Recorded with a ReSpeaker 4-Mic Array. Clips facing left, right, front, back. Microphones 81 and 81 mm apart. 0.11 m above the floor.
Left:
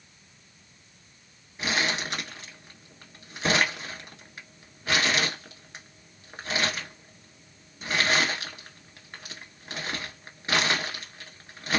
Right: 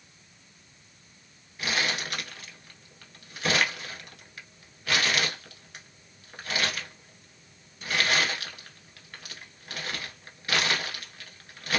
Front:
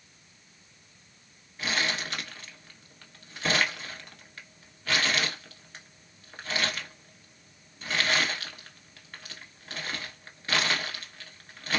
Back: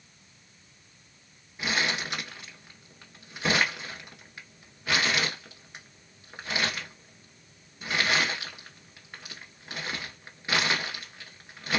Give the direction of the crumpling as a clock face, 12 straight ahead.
8 o'clock.